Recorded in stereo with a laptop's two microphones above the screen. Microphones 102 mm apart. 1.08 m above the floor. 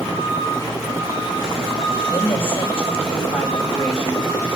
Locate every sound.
2.1 s a woman speaking: 65° left (ahead or behind), 6 m